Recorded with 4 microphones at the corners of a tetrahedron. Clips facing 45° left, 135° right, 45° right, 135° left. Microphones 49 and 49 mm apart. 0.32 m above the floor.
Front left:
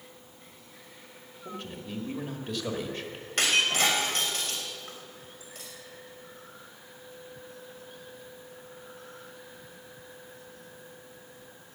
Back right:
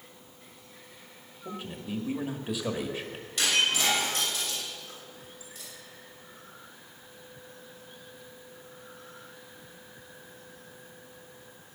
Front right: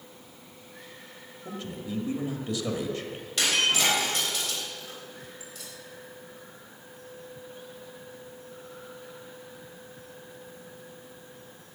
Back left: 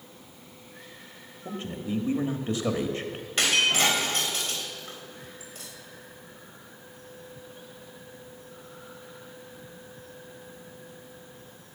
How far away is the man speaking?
About 1.4 m.